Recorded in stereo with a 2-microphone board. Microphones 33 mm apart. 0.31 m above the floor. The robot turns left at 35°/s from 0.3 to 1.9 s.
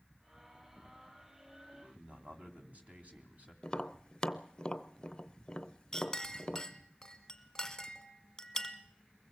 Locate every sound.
1.7 s a man speaking: 50° right (ahead or behind), 2.5 m; by 3.5 s 45° right (ahead or behind), 2.5 m
3.6 s tapping: 25° left (ahead or behind), 0.6 m
5.9 s a clink: 15° left (ahead or behind), 1.1 m